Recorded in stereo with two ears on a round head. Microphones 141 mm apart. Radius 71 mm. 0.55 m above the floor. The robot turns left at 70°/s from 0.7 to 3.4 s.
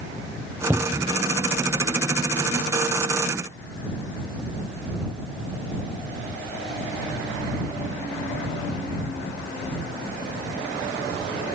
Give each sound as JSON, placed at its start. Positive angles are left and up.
{"t": 0.7, "sound": "a cupboard door", "azimuth_deg": -10}